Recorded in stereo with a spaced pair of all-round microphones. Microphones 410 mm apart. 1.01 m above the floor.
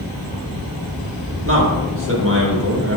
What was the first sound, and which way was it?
A man speaking, 30° right (ahead or behind).